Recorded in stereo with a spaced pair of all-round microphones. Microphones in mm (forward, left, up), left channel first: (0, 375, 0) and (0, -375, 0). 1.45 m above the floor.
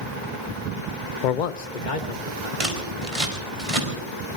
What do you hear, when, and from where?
1.2 s a man speaking: 80° left, 0.6 m; by 2.5 s 75° left (ahead or behind), 2.5 m
2.6 s scissors: 45° right (ahead or behind), 4.5 m